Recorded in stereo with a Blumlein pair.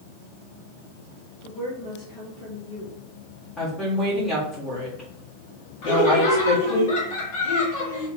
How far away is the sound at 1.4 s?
About 1.9 m.